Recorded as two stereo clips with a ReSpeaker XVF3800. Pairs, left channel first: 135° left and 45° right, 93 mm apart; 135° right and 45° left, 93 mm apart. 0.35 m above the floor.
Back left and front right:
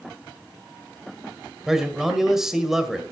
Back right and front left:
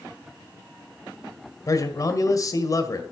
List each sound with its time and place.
1.7 s a man speaking: 125° right, 1.7 m